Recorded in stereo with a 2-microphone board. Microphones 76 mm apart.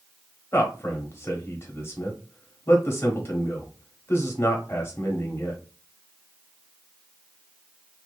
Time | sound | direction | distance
0.5 | a man speaking | 35° left (ahead or behind) | 1.0 m